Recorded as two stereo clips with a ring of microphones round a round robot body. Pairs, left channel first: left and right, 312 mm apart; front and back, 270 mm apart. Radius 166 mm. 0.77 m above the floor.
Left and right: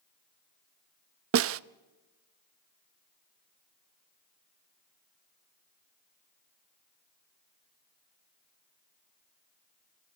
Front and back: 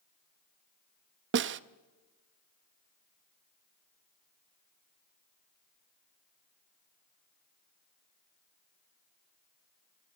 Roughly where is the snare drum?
Behind right.